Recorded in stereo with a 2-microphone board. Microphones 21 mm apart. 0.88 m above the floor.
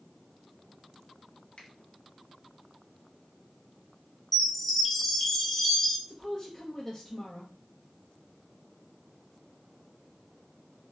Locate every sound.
1.6 s a finger snap: 60° left (ahead or behind), 1.1 m
4.3 s a chime: 5° left (ahead or behind), 0.8 m
6.1 s a woman speaking: 30° left (ahead or behind), 0.6 m